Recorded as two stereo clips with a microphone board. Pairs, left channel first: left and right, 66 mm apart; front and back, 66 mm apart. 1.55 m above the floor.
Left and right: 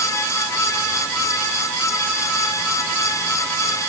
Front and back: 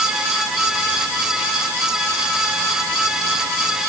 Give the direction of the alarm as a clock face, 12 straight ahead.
No alarm in this recording.